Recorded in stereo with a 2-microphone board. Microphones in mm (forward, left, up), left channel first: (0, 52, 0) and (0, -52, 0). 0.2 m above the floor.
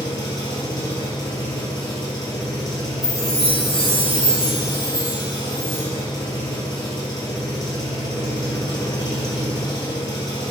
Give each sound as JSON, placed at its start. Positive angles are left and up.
{"t": 0.0, "sound": "an engine running", "side_deg": 40, "distance_m": 1.2}
{"t": 3.0, "sound": "a chime", "side_deg": -5, "distance_m": 2.0}